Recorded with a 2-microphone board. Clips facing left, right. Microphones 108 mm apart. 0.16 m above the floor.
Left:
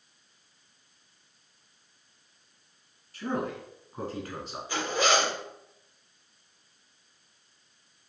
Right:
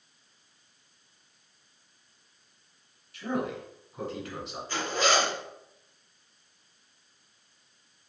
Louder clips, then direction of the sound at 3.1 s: Even; 40° left (ahead or behind).